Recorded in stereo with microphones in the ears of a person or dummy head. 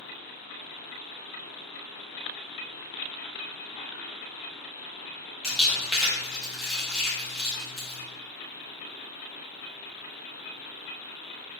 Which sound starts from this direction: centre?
Crumpling, at 5.4 s.